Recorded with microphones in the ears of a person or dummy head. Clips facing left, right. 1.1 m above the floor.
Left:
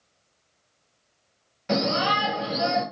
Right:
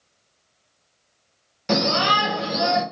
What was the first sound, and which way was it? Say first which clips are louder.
A shout: right 2 dB; 45° right (ahead or behind).